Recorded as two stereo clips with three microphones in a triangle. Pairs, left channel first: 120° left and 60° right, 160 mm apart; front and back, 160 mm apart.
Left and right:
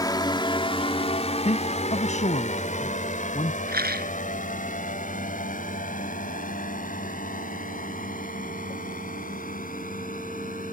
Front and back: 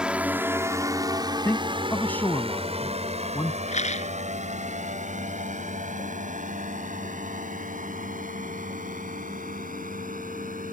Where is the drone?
105° left; by 10.7 s 150° left.